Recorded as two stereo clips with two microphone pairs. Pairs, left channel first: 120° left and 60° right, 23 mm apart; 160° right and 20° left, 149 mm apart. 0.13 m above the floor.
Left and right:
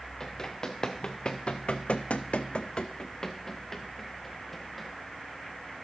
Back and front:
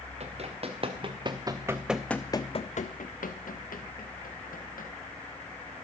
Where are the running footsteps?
60° left, 1.7 m; by 4.9 s 155° right, 2 m.